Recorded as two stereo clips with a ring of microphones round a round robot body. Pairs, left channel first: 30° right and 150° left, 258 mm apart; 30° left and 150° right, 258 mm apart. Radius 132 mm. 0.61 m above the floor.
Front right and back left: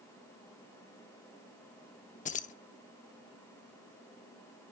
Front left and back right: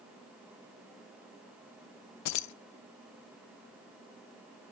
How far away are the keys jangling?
About 0.7 m.